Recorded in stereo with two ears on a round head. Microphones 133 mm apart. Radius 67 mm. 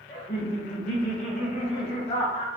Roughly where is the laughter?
Left.